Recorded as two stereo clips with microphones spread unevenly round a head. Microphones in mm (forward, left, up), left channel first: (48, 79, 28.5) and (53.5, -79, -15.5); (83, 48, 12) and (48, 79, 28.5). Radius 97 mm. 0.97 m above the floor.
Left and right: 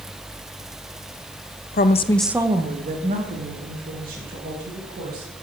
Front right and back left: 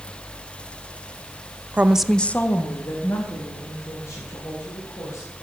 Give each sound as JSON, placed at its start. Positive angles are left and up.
{"t": 1.7, "sound": "a woman speaking", "azimuth_deg": 70, "distance_m": 0.8}